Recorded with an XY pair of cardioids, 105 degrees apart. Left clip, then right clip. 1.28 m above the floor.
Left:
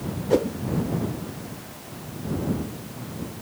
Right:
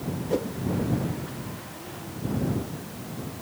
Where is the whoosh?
35° left.